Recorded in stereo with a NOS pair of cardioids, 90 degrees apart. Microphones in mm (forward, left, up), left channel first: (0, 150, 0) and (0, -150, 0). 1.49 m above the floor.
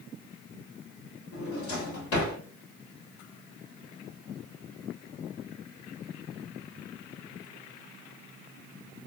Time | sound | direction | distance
1.3 | a drawer | 50° left | 1.8 m